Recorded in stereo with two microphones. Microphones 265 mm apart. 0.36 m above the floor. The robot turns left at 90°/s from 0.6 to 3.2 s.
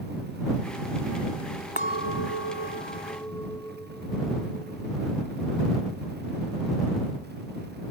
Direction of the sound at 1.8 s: 140° left.